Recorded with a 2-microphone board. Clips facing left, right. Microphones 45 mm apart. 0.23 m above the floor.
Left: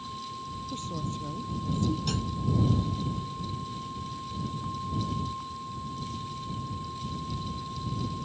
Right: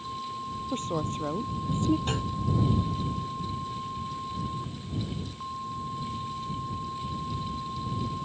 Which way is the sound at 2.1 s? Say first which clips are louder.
Right 2 dB; 30° right (ahead or behind).